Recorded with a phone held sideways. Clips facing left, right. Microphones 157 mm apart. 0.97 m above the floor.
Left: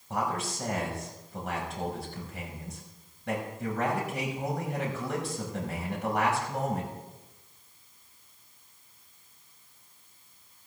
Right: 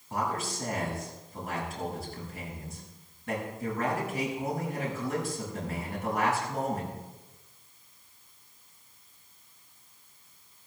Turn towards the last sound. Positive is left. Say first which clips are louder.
# left 1 dB
turn(degrees=70)  # may be behind; listen again after turning